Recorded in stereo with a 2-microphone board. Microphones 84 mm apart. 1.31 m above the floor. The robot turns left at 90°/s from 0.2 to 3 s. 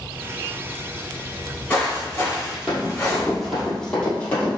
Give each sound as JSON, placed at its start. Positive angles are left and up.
{"t": 1.3, "sound": "footsteps", "side_deg": 0, "distance_m": 1.8}
{"t": 2.7, "sound": "running footsteps", "side_deg": -5, "distance_m": 1.6}